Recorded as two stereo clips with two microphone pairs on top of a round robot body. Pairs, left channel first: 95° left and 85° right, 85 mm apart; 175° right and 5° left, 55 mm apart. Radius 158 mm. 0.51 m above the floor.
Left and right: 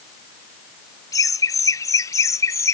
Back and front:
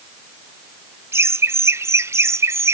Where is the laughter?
45° left; by 2.7 s 40° left.